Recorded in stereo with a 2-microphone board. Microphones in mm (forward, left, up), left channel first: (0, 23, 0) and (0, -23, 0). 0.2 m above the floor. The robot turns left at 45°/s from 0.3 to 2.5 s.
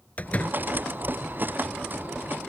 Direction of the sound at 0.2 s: 35° left (ahead or behind).